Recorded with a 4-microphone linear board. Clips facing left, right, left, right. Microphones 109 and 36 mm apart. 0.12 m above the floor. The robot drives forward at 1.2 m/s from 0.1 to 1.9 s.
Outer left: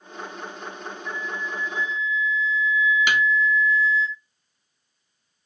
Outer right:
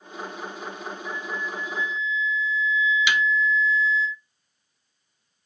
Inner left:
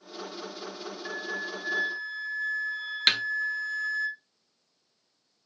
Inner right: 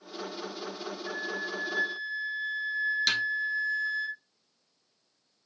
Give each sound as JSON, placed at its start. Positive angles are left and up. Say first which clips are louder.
{"t": 1.1, "sound": "a flute", "louder": "outer left 1 dB, inner left 1 dB", "side_deg": 70, "distance_m": 5.5}
{"t": 3.1, "sound": "a snare drum", "louder": "outer left 1 dB, inner left 8 dB", "side_deg": 50, "distance_m": 1.0}